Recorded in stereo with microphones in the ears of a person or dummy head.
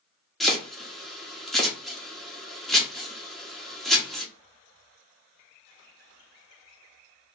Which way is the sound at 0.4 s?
Centre (ahead or behind).